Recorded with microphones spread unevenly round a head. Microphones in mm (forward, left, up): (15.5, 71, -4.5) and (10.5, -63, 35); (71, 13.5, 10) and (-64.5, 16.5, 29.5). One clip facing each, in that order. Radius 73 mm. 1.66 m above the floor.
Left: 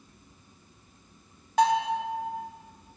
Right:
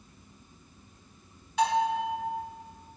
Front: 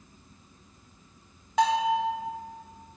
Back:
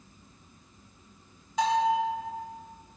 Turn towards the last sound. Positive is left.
turn(degrees=35)